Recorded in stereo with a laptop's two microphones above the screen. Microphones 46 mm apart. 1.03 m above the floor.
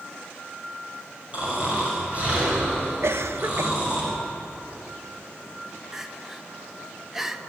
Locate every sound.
1.3 s snoring: 30° right (ahead or behind), 5.5 m
3.0 s a cough: 60° right (ahead or behind), 0.9 m
5.9 s crying: 10° right (ahead or behind), 0.7 m